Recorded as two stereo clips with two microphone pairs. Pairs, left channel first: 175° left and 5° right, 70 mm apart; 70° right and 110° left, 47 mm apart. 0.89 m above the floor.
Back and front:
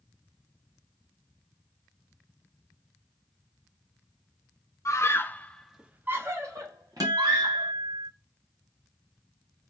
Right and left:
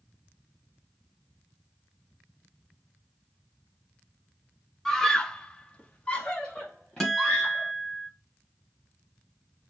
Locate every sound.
4.8 s a scream: 150° right, 0.9 m; by 7.7 s 5° left, 1.6 m
7.0 s a guitar: 10° left, 1.4 m